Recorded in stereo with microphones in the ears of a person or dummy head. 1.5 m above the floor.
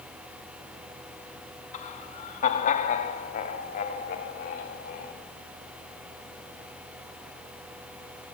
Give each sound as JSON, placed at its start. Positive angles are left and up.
{"t": 1.7, "sound": "laughter", "side_deg": 35, "distance_m": 2.5}